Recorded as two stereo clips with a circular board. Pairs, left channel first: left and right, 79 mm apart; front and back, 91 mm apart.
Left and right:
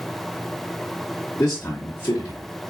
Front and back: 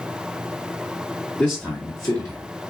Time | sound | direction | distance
1.4 | a man speaking | 65° left | 1.1 m